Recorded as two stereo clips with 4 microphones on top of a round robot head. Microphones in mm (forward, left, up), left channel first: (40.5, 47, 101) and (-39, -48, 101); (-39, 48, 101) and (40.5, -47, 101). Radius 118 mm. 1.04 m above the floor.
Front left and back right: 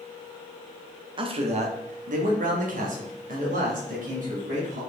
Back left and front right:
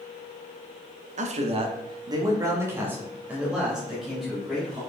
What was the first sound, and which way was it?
A man speaking, 80° right.